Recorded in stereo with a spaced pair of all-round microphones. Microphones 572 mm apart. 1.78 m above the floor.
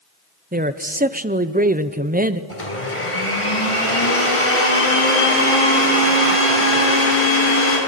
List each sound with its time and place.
0.5 s a man speaking: 15° right (ahead or behind), 0.8 m
2.5 s a blender: 65° left (ahead or behind), 5.5 m